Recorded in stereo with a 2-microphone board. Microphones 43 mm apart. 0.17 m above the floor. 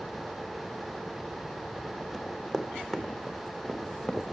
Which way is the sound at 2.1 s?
10° right (ahead or behind).